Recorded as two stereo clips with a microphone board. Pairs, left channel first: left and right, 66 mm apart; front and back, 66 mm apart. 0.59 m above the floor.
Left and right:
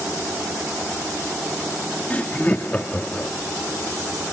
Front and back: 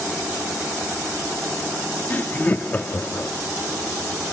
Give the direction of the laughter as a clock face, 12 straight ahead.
11 o'clock.